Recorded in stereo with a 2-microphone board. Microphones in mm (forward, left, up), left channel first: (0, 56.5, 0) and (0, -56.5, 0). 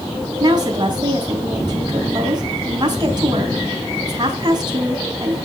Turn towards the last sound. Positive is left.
turn(degrees=-40)  # may be behind; listen again after turning